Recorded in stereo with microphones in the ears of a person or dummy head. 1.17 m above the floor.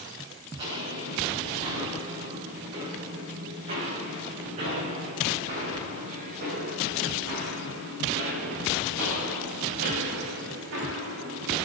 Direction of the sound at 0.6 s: 30° right (ahead or behind).